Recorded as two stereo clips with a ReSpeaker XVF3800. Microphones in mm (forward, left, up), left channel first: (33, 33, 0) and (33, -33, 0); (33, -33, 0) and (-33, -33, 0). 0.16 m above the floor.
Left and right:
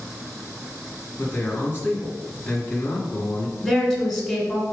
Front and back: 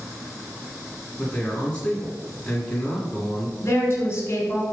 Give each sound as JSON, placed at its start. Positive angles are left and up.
{"t": 1.2, "sound": "a man speaking", "azimuth_deg": 60, "distance_m": 1.9}
{"t": 3.6, "sound": "a woman speaking", "azimuth_deg": 10, "distance_m": 1.4}